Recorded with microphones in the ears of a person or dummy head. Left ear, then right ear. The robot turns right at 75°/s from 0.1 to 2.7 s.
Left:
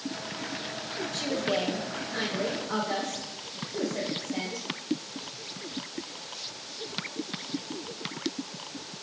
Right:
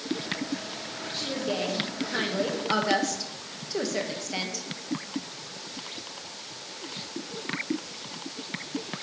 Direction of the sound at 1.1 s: 130° left.